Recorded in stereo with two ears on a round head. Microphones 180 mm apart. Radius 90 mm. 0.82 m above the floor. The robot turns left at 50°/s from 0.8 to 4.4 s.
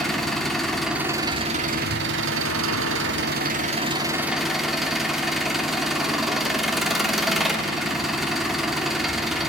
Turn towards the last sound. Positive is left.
turn(degrees=180)